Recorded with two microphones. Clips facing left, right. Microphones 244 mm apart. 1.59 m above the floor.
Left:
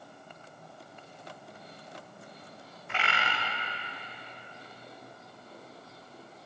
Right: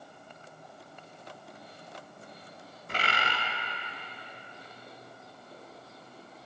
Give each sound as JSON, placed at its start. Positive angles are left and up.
{"t": 2.9, "sound": "a bird", "side_deg": -40, "distance_m": 0.5}